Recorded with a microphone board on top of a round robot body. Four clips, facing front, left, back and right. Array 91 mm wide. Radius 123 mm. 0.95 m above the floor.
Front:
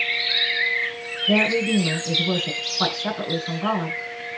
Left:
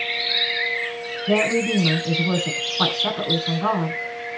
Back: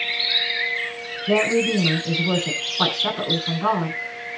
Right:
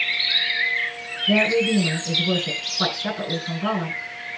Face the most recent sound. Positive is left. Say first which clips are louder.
# right 1 dB, back 1 dB
turn(degrees=130)